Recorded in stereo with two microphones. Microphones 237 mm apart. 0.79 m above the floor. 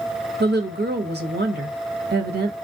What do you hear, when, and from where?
0.4 s a woman speaking: 45° right (ahead or behind), 0.6 m